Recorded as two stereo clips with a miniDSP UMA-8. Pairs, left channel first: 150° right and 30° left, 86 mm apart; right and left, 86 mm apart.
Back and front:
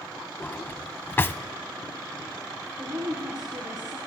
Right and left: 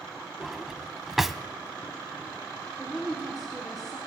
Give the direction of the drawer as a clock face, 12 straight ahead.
6 o'clock.